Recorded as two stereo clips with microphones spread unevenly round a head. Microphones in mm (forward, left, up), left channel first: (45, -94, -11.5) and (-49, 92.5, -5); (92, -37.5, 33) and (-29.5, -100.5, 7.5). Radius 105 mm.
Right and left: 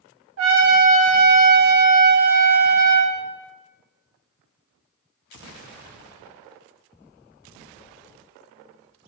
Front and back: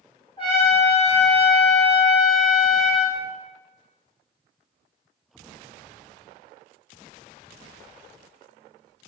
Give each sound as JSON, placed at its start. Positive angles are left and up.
{"t": 0.4, "sound": "a trumpet", "azimuth_deg": 95, "distance_m": 0.7}